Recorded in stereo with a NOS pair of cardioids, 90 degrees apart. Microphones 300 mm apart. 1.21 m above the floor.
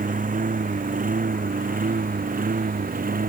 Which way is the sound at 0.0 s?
25° right.